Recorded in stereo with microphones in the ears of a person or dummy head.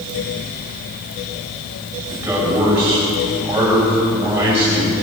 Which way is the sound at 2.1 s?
5° right (ahead or behind).